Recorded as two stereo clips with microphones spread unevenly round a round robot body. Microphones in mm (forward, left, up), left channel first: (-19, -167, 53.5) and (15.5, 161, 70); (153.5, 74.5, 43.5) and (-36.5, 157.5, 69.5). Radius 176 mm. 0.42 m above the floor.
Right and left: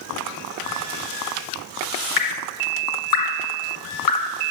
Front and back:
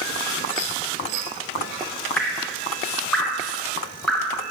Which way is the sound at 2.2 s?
105° right.